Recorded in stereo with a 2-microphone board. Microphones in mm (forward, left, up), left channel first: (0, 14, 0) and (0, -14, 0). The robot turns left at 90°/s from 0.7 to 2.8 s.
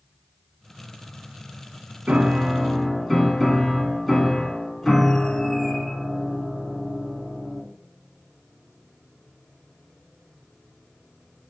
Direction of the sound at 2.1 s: 125° right.